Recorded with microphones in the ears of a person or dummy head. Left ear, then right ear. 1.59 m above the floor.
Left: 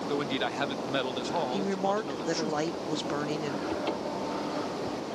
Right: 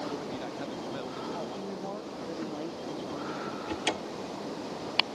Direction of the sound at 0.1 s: 80° left.